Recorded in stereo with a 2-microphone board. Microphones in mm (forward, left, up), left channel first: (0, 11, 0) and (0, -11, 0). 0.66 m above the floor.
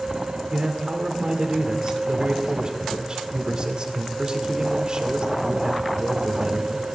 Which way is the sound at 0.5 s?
40° right (ahead or behind).